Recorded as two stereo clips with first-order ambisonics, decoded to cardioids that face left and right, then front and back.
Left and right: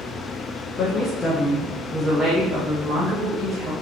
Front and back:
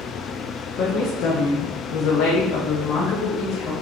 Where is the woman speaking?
45° left, 0.8 m; by 3.7 s 35° right, 1.5 m.